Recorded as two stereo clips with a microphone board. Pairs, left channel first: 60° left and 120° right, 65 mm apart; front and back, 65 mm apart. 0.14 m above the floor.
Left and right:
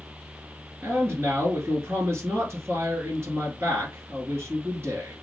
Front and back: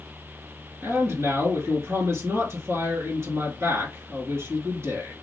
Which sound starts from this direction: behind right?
A man speaking, at 0.8 s.